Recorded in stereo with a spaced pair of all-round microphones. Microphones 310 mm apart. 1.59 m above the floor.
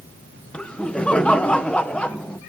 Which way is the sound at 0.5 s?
5° left (ahead or behind).